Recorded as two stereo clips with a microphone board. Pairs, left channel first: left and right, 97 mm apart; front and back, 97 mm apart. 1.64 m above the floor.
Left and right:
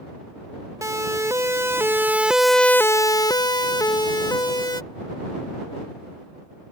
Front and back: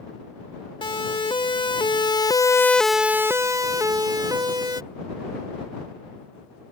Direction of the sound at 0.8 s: 35° right.